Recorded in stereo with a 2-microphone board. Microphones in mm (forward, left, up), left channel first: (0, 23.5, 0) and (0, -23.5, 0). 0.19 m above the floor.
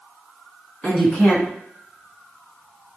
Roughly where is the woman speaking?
Centre.